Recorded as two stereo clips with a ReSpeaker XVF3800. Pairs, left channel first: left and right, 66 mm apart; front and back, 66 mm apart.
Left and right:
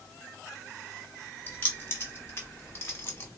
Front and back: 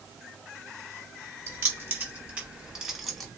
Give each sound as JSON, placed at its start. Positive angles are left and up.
{"t": 1.5, "sound": "keys jangling", "azimuth_deg": 140, "distance_m": 1.6}